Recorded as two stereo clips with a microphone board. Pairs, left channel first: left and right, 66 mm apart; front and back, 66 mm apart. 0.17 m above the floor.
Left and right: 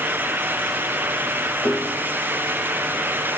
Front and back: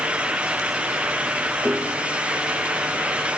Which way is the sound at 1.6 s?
130° left.